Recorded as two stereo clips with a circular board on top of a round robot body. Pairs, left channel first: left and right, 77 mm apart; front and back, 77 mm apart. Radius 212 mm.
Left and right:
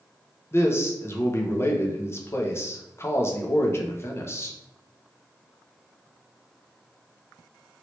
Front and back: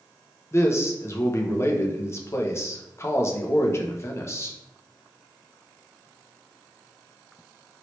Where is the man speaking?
45° left, 0.8 m.